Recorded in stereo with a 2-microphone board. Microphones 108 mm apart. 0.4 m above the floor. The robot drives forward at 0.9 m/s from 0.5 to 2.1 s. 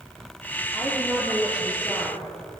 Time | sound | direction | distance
0.7 | a woman speaking | 5° right (ahead or behind) | 7.5 m